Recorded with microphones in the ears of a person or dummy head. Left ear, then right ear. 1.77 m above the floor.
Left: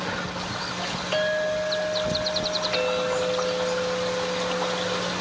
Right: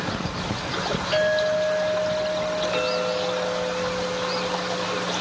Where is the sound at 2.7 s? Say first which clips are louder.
Even; 25° left (ahead or behind), 2.5 m.